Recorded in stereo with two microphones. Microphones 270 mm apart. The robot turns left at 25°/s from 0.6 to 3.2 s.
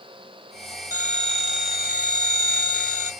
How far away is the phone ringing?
About 1.3 m.